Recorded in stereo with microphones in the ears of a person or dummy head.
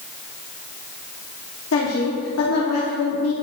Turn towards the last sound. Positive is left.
turn(degrees=75)  # may be behind; listen again after turning